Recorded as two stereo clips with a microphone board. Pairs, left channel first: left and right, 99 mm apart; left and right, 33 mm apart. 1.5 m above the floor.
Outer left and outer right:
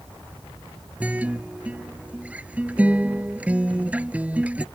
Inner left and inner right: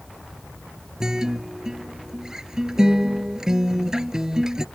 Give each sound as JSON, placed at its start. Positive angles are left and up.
{"t": 1.0, "sound": "a guitar", "side_deg": -15}